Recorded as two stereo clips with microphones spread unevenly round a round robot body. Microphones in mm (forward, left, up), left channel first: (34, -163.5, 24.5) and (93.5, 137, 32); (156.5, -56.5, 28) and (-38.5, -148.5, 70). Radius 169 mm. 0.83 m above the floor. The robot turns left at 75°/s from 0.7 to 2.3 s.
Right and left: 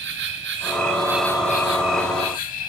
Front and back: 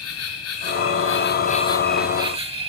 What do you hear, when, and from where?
0.0 s an insect: 25° left, 1.9 m; by 2.7 s 95° right, 1.9 m